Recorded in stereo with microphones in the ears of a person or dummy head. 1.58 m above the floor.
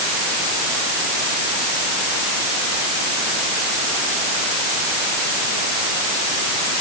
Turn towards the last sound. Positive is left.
No sound to turn to.